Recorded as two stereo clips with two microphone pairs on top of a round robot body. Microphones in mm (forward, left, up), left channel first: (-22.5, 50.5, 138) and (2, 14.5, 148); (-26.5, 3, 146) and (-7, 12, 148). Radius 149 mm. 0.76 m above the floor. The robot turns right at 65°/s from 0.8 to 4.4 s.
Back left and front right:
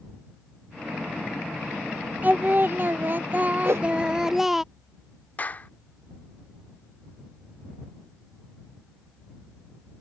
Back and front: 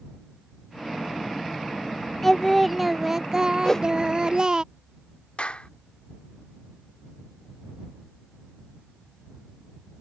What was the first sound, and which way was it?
Singing, 95° right.